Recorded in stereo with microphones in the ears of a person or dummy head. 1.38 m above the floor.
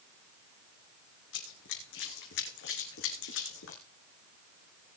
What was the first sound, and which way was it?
Running footsteps, 70° left (ahead or behind).